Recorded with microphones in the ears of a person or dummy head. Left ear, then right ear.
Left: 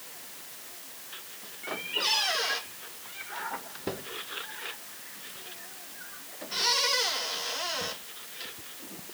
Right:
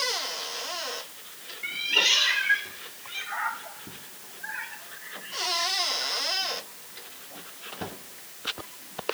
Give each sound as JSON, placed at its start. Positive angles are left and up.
{"t": 1.6, "sound": "a cat meowing", "side_deg": -70}